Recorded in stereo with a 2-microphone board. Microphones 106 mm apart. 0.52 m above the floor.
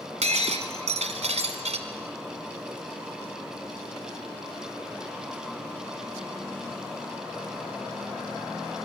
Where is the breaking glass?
85° right, 1.4 m.